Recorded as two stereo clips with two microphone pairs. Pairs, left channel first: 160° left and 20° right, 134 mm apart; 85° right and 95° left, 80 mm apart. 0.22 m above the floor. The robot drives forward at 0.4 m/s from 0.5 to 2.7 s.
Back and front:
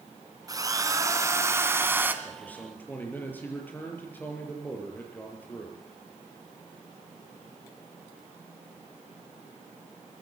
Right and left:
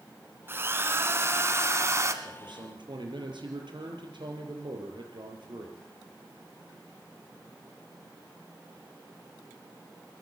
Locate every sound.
0.5 s a drill: 40° left, 2.5 m; by 2.1 s 55° left, 2 m
2.2 s a man speaking: 85° left, 6.5 m